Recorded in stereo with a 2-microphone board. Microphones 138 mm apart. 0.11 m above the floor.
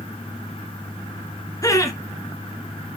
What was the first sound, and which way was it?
Laughter, 25° left (ahead or behind).